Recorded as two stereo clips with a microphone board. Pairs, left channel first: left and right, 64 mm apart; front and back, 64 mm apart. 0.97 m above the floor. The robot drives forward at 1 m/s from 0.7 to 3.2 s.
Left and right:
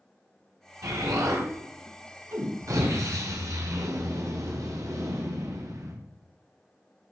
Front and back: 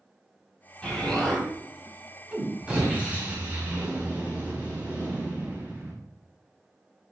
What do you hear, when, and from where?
0.8 s an explosion: 75° right, 3.5 m; by 5.9 s 115° right, 3.5 m